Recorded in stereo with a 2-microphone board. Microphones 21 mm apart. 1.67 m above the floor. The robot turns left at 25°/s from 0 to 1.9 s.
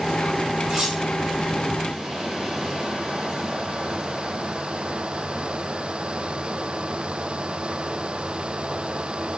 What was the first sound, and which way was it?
Cutlery clinking, 55° right (ahead or behind).